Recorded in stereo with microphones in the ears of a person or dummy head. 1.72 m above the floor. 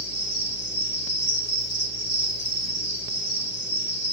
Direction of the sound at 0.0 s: 55° left (ahead or behind).